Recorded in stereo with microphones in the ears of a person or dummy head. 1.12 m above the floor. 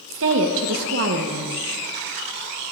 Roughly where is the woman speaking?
Right.